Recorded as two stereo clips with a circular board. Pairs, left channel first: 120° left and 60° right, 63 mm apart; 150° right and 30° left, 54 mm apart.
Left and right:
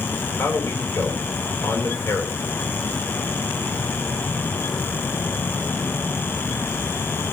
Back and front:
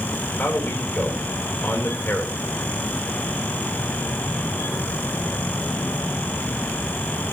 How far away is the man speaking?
About 3.5 m.